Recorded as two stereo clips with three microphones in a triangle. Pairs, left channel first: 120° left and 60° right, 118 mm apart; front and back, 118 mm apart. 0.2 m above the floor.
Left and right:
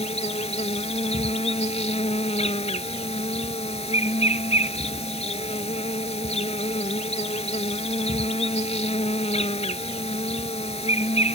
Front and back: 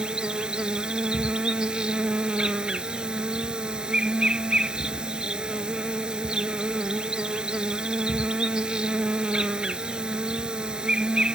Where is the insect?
95° left.